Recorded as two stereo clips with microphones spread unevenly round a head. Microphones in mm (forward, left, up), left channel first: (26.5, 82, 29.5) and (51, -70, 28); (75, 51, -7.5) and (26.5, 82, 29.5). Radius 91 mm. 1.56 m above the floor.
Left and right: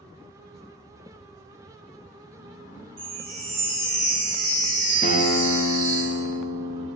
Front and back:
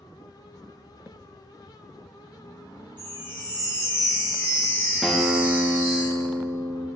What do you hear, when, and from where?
3.0 s a chime: 130° right, 1.8 m
5.0 s a guitar: 60° left, 0.9 m